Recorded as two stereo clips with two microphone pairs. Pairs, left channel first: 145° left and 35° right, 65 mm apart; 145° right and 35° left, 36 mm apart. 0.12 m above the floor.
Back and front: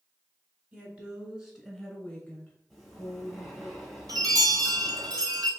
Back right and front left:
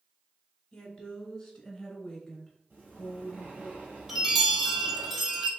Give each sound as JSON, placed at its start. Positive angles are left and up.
{"t": 0.7, "sound": "a woman speaking", "azimuth_deg": -85, "distance_m": 1.4}
{"t": 2.7, "sound": "breathing", "azimuth_deg": 65, "distance_m": 1.6}
{"t": 4.1, "sound": "a chime", "azimuth_deg": -50, "distance_m": 1.0}